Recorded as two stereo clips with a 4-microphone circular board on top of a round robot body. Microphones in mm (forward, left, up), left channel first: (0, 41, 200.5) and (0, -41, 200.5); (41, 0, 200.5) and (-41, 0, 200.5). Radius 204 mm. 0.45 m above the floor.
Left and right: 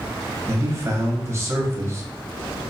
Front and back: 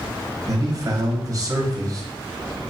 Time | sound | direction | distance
0.5 | a man speaking | 140° right | 1.8 m